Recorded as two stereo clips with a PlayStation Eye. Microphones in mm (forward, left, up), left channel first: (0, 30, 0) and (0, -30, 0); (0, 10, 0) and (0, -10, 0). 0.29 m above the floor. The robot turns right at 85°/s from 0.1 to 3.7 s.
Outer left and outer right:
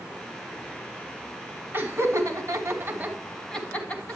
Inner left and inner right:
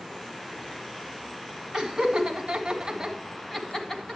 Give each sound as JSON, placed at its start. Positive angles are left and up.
{"t": 1.7, "sound": "laughter", "side_deg": -30, "distance_m": 2.5}